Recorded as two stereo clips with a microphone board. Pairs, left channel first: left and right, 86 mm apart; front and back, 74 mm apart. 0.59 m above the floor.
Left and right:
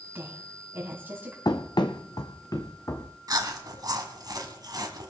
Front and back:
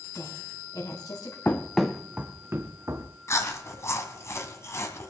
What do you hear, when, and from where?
0.1 s a woman speaking: 25° right, 3.5 m
1.4 s running footsteps: 60° left, 1.1 m; by 3.1 s 140° left, 1.8 m
3.3 s chewing: 50° right, 1.8 m